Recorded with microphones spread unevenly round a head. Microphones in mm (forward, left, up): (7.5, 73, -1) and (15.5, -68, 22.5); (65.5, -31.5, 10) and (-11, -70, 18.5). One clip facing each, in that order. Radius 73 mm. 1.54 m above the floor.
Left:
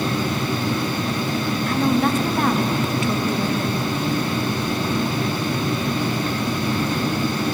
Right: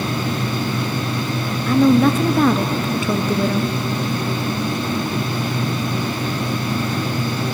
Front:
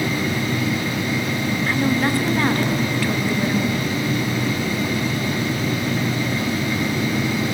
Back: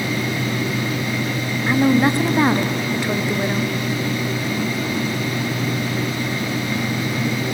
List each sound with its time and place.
1.7 s a woman speaking: 85° right, 0.7 m